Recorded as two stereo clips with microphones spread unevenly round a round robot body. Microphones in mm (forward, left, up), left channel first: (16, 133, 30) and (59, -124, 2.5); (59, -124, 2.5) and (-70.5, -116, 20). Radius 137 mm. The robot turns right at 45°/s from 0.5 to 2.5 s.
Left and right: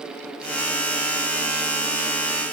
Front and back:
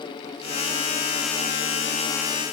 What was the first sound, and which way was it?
Only background noise.